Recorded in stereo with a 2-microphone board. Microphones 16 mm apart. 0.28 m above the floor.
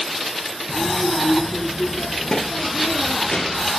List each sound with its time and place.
0.7 s a child speaking: 75° left (ahead or behind), 3.5 m